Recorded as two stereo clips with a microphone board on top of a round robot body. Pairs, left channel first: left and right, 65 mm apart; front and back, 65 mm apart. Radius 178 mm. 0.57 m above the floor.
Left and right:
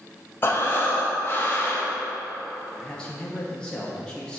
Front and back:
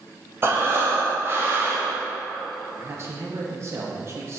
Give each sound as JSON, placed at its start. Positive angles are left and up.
{"t": 0.4, "sound": "breathing", "azimuth_deg": 135, "distance_m": 1.3}
{"t": 2.8, "sound": "a man speaking", "azimuth_deg": 160, "distance_m": 1.0}